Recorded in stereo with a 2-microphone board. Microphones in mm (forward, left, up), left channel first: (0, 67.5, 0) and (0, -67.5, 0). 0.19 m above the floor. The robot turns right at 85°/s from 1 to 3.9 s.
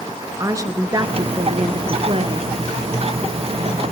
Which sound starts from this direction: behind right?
A woman speaking, at 0.4 s.